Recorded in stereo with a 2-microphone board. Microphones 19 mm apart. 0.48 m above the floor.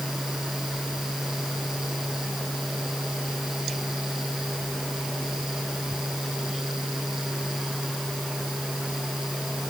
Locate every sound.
Only background noise.